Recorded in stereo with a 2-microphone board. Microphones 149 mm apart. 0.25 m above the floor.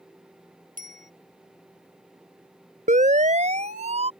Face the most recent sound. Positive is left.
turn(degrees=-45)  # may be behind; listen again after turning